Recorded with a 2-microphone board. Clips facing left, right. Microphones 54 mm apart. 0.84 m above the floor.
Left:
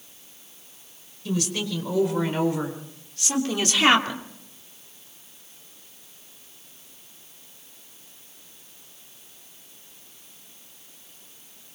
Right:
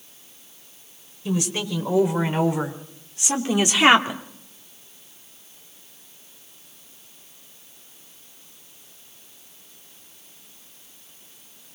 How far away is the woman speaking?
About 4.5 m.